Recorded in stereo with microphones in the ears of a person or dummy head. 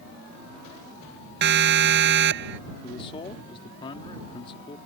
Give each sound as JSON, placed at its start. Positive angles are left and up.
{"t": 1.4, "sound": "a siren", "side_deg": -60}
{"t": 2.8, "sound": "a man speaking", "side_deg": 30}